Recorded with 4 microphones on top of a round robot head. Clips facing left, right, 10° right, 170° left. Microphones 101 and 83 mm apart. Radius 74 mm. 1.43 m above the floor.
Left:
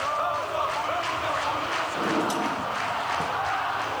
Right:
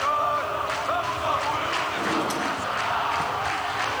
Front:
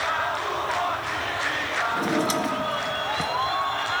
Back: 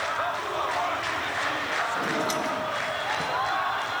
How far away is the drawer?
About 0.9 m.